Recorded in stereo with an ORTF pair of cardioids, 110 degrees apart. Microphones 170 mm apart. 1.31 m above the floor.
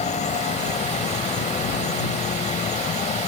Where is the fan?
45° left.